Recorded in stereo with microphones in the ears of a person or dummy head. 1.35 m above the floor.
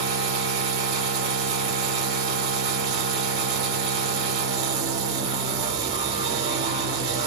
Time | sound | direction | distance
0.0 | a machine running | 35° right (ahead or behind) | 1.1 m